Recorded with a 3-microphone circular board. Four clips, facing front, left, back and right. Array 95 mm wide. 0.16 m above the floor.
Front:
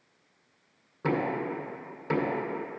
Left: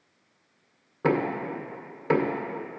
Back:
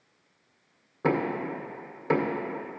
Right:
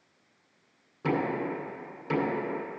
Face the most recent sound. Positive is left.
turn(degrees=110)